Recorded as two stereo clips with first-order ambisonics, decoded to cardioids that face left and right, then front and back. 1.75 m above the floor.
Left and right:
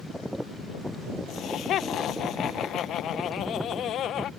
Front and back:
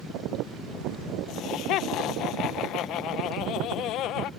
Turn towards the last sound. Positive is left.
turn(degrees=40)